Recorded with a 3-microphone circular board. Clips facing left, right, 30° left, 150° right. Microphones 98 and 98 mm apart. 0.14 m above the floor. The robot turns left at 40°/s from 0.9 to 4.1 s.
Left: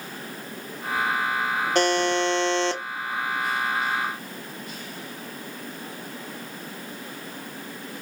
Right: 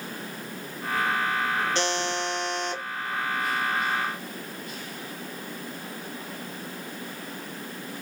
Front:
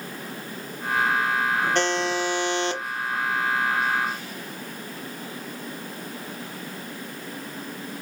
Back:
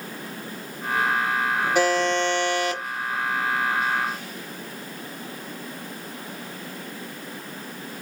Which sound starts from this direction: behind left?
A buzzer, at 1.8 s.